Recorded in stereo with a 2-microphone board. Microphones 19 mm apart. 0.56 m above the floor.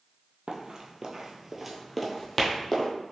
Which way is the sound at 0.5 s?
50° right (ahead or behind).